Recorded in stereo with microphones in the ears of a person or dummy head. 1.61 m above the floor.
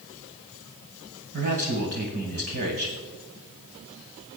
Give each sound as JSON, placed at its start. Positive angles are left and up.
{"t": 1.3, "sound": "a man speaking", "side_deg": -45, "distance_m": 1.6}